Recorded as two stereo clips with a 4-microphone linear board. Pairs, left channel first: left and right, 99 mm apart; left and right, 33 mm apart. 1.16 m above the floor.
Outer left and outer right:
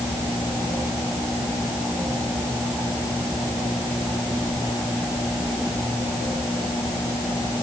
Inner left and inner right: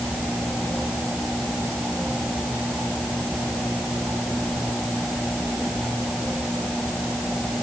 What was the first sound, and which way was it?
Only background noise.